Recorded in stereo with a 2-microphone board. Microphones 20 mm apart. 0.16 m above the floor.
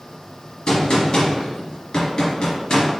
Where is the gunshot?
50° left (ahead or behind), 1.8 m.